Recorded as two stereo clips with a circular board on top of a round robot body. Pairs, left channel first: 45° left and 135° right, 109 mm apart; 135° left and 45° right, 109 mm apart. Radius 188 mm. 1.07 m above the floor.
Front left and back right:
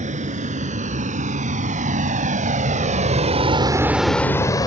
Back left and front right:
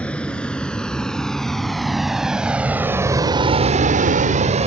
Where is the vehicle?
145° right; by 4.7 s 15° right.